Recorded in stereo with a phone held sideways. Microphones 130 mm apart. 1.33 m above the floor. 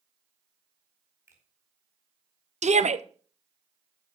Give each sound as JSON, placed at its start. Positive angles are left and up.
{"t": 1.3, "sound": "a finger snap", "side_deg": -20, "distance_m": 4.5}
{"t": 2.6, "sound": "a shout", "side_deg": -65, "distance_m": 0.8}